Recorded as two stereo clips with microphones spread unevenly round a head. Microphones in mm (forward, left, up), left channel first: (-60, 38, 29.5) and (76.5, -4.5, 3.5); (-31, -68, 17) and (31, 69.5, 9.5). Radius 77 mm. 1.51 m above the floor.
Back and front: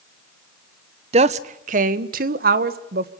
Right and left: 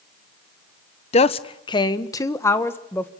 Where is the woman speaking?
65° right, 1.2 m; by 3.1 s 35° right, 2.0 m.